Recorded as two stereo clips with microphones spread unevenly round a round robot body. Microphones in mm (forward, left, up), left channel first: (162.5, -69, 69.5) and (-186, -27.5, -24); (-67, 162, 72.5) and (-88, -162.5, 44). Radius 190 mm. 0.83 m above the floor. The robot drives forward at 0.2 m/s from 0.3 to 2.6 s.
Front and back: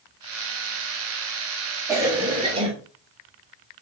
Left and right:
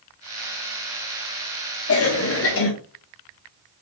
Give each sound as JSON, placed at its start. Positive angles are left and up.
{"t": 1.9, "sound": "a cough", "azimuth_deg": 115, "distance_m": 1.0}